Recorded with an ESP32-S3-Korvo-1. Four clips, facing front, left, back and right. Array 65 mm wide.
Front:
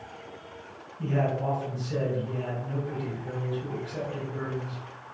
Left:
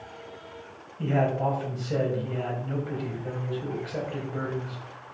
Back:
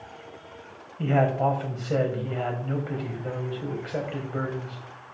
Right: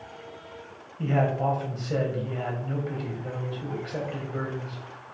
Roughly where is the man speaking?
Behind.